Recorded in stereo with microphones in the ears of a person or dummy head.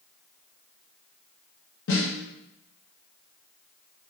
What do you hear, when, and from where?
1.9 s a snare drum: 70° left (ahead or behind), 1.4 m